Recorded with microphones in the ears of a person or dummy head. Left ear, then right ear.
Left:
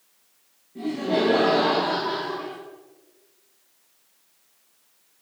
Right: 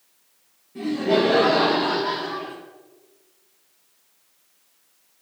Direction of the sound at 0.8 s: 55° right (ahead or behind).